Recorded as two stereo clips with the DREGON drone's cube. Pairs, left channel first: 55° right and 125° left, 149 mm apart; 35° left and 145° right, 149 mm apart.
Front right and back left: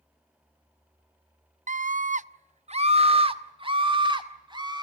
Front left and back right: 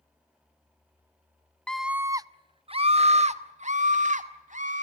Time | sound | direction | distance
1.7 | a scream | 115° left | 0.5 m